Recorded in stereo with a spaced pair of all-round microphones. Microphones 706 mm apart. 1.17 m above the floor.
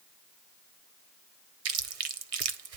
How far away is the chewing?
About 0.6 m.